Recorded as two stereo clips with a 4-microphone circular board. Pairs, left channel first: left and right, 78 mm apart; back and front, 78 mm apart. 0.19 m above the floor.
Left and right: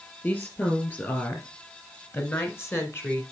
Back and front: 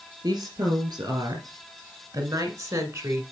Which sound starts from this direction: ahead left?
A woman speaking, at 0.2 s.